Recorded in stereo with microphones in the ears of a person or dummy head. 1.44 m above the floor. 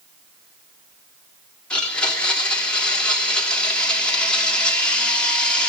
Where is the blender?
10° left (ahead or behind), 2.5 m.